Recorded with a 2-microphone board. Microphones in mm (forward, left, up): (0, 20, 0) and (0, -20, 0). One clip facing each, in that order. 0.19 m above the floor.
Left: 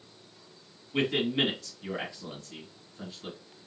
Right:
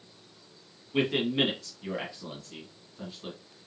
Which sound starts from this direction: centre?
A man speaking, at 0.9 s.